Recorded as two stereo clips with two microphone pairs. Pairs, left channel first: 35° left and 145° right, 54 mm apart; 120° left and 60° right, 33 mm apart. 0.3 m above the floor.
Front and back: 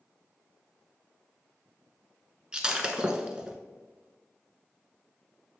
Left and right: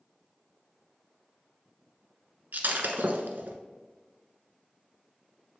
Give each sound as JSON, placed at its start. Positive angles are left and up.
{"t": 2.5, "sound": "breaking glass", "azimuth_deg": -70, "distance_m": 0.8}